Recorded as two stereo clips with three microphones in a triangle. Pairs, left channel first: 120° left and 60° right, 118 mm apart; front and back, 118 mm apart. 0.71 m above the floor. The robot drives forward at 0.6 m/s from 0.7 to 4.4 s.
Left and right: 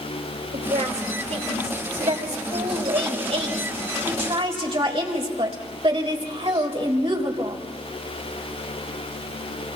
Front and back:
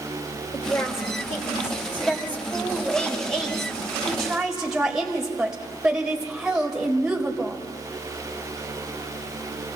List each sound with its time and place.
0.5 s a woman speaking: 60° right, 4 m; by 7.6 s 95° right, 3.5 m